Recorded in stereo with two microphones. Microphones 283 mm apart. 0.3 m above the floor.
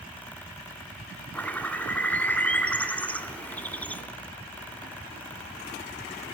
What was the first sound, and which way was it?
A bird, 5° left (ahead or behind).